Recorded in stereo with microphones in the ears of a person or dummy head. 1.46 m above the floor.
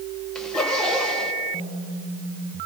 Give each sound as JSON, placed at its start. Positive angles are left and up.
{"t": 0.3, "sound": "a zipper", "side_deg": 10, "distance_m": 1.8}